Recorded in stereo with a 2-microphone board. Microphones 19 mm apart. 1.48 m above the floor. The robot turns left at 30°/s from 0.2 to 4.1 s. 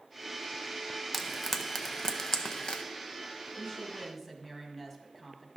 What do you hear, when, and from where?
1.1 s frying: 5° right (ahead or behind), 0.6 m; by 2.8 s 45° left (ahead or behind), 0.6 m
3.6 s a woman speaking: 30° left (ahead or behind), 1.8 m; by 5.5 s 15° left (ahead or behind), 1.8 m